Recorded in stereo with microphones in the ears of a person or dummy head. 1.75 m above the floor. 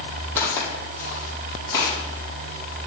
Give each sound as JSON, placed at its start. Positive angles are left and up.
{"t": 0.4, "sound": "footsteps", "side_deg": 15, "distance_m": 4.0}